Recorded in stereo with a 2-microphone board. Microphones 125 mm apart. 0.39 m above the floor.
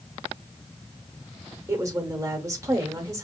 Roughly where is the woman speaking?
Right.